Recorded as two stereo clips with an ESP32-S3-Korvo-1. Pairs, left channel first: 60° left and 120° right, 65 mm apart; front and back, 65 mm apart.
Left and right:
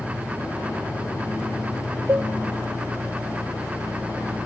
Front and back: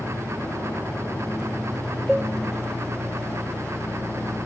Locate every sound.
0.0 s an engine running: 30° right, 6 m
2.1 s a cowbell: 95° right, 1.8 m